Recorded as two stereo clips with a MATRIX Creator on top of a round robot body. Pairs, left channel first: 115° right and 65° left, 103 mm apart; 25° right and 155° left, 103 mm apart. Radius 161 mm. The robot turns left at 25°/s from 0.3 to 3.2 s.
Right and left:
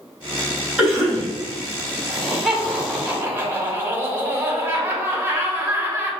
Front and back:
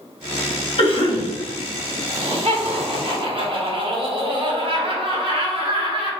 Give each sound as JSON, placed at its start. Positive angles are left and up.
{"t": 0.8, "sound": "a cough", "azimuth_deg": -15, "distance_m": 1.9}
{"t": 2.1, "sound": "laughter", "azimuth_deg": 160, "distance_m": 1.6}